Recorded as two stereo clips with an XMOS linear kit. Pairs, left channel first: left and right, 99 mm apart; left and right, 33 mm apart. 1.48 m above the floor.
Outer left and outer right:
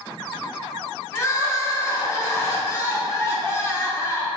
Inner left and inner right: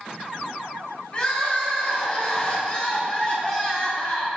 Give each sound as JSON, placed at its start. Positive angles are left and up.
{"t": 1.1, "sound": "crying", "side_deg": 30, "distance_m": 1.1}